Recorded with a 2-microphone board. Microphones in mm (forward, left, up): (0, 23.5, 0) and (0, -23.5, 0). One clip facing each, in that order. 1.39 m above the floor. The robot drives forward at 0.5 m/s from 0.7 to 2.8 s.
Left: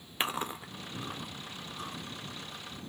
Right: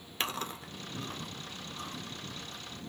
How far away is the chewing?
About 0.6 m.